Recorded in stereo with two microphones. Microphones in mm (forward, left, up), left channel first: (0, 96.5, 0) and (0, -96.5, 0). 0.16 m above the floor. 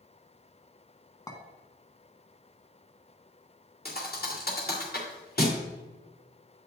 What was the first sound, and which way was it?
A clink, 20° left (ahead or behind).